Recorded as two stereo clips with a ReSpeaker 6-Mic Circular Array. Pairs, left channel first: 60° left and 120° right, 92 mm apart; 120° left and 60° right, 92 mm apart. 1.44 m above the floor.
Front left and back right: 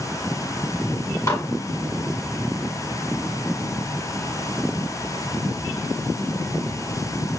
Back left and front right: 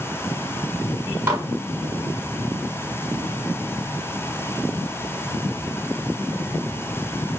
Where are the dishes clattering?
5° left, 1.6 m.